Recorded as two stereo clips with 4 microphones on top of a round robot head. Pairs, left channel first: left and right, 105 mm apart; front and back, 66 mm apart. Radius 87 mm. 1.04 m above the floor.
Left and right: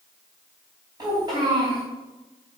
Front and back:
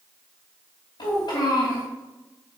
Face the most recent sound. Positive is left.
turn(degrees=-30)